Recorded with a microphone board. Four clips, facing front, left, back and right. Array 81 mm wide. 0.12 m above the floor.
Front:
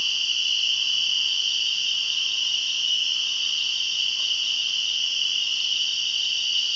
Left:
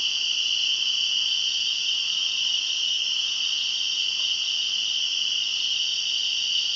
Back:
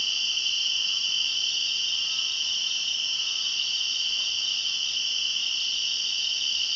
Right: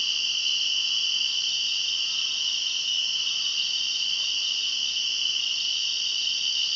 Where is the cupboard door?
I don't hear a cupboard door.